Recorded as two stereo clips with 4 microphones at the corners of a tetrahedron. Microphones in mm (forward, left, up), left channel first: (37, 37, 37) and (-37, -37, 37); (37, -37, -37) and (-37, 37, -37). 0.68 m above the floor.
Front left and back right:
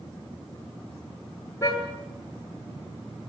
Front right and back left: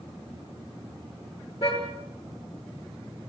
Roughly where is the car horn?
Ahead.